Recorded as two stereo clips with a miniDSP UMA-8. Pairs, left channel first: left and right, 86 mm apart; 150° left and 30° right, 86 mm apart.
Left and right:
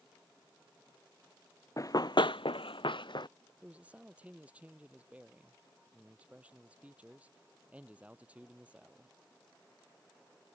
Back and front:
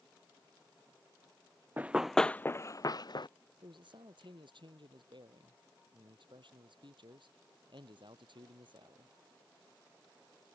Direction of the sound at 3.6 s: 15° right.